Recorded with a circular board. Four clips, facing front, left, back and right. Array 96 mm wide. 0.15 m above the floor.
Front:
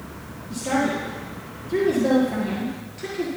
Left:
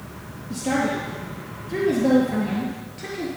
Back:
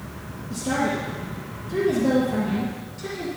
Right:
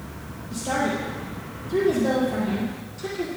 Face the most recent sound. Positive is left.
turn(degrees=55)